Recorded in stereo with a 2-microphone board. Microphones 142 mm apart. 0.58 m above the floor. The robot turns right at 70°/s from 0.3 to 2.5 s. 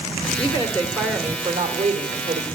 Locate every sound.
0.4 s a woman speaking: 135° left, 1.6 m; by 2.5 s 80° right, 1.6 m